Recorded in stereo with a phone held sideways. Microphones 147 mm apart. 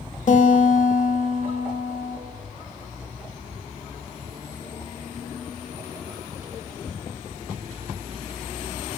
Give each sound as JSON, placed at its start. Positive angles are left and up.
{"t": 0.3, "sound": "a guitar", "side_deg": 60, "distance_m": 1.5}